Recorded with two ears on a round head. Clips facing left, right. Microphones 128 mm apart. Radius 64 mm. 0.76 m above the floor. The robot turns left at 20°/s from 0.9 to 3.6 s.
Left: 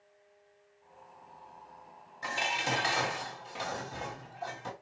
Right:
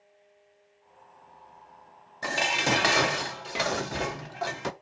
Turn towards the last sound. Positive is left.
turn(degrees=-75)  # may be behind; listen again after turning